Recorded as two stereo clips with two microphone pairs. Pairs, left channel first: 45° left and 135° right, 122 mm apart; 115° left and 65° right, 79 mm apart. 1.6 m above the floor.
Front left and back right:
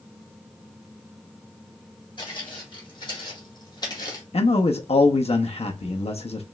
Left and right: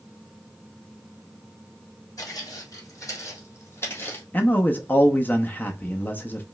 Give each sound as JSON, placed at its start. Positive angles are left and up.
{"t": 2.2, "sound": "footsteps", "azimuth_deg": 85, "distance_m": 3.5}
{"t": 4.3, "sound": "a man speaking", "azimuth_deg": 55, "distance_m": 0.6}